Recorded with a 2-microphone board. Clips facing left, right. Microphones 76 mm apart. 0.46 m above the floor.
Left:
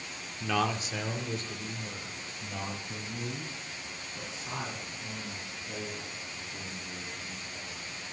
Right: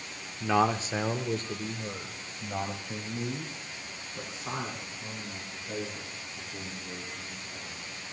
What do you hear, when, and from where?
0.4 s a man speaking: 20° right (ahead or behind), 0.7 m; by 7.9 s 40° right (ahead or behind), 6.5 m